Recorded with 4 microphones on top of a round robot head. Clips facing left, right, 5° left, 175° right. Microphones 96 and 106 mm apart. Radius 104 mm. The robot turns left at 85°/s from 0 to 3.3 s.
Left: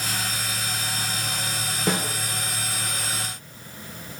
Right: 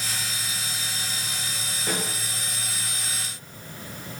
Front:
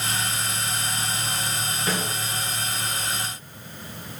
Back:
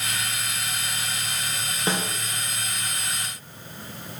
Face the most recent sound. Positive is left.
turn(degrees=-5)